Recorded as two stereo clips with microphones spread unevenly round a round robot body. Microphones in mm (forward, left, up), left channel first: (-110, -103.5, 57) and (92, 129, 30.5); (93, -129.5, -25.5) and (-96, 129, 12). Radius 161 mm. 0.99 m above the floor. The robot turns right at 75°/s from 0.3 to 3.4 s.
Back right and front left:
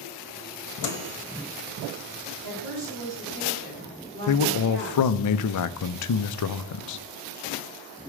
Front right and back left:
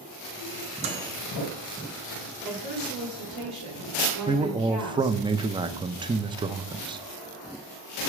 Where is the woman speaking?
35° left, 3 m; by 5.2 s 110° left, 3 m.